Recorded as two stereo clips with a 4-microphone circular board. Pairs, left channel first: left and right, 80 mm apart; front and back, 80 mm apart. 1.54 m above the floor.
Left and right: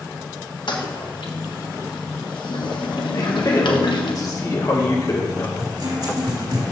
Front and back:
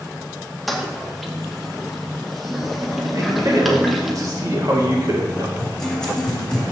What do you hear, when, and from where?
0.7 s a toilet flushing: 90° left, 1.3 m
3.1 s a man speaking: 135° left, 2.5 m
5.6 s a guitar: 80° right, 2.5 m